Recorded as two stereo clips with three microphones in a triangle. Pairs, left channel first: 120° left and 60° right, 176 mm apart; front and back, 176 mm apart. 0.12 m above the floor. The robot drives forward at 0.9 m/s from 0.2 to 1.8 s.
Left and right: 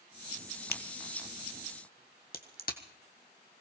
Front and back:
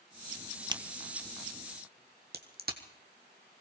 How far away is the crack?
About 0.8 m.